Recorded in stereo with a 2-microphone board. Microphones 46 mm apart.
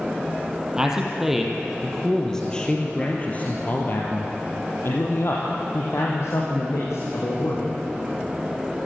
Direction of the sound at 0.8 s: 15° right (ahead or behind).